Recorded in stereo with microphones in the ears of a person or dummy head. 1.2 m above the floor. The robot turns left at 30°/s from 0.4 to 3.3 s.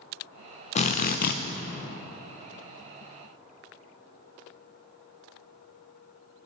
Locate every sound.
0.8 s a drill: 40° left (ahead or behind), 0.6 m; by 1.4 s 55° left (ahead or behind), 0.6 m